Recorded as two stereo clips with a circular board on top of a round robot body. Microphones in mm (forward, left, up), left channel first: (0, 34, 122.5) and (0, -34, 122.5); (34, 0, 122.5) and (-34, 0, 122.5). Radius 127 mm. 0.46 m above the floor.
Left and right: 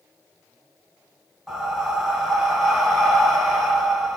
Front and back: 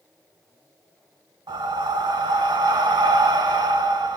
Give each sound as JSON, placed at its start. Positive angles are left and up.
{"t": 1.5, "sound": "breathing", "azimuth_deg": 180, "distance_m": 2.0}